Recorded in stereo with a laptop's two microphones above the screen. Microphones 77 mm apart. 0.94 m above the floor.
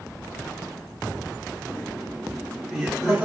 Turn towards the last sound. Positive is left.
turn(degrees=-15)  # may be behind; listen again after turning